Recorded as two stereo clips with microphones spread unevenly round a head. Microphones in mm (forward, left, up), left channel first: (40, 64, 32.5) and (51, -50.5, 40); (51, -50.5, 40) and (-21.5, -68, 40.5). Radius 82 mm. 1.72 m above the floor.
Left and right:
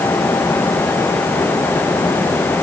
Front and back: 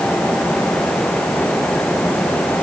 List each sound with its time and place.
Only background noise.